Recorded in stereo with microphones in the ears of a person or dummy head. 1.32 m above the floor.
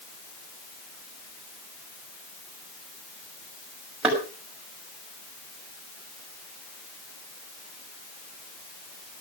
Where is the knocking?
5° right (ahead or behind), 6 m.